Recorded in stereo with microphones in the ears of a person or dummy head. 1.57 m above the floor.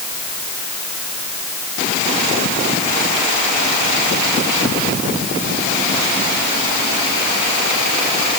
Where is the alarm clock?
No alarm clock in this recording.